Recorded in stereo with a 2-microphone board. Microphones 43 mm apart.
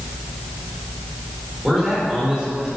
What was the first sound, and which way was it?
A man speaking, 15° right (ahead or behind).